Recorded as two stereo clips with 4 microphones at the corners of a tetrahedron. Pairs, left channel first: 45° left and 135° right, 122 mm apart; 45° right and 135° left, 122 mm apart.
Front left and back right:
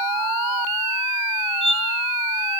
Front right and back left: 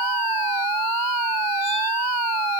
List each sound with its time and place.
1.6 s a squeak: 10° left, 4.5 m